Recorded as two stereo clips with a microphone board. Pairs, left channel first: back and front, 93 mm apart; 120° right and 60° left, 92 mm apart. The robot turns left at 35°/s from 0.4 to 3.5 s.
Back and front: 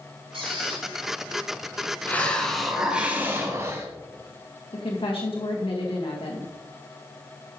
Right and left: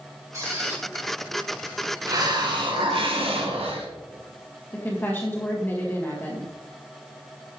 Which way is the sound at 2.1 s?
110° left.